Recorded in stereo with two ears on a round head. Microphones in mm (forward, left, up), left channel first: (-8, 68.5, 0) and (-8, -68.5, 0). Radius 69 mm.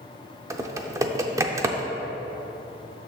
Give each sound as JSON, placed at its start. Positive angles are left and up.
{"t": 0.5, "sound": "typing on a keyboard", "side_deg": -20, "distance_m": 0.5}